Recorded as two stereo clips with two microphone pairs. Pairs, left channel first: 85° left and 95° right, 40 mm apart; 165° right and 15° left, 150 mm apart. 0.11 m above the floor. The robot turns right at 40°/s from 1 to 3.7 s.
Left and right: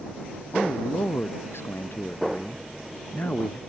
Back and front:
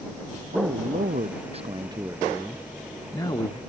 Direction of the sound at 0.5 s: 40° left.